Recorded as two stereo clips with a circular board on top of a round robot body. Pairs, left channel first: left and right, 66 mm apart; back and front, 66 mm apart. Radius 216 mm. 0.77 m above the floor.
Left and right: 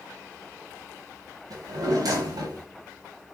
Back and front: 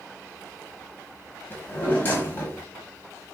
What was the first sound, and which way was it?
A drawer, 115° right.